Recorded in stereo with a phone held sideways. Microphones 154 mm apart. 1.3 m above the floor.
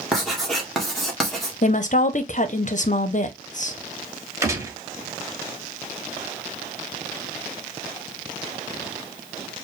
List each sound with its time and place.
0.1 s writing: centre (ahead or behind), 1.6 m
1.6 s a woman speaking: 55° left (ahead or behind), 0.7 m
4.4 s a gunshot: 20° right (ahead or behind), 1.1 m